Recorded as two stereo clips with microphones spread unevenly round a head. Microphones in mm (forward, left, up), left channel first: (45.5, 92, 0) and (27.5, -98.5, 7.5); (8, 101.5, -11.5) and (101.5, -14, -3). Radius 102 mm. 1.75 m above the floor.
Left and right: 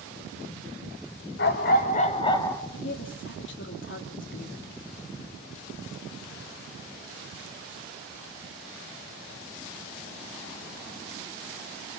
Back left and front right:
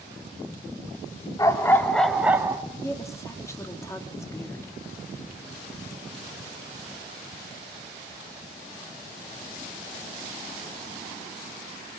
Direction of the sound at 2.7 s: 60° left.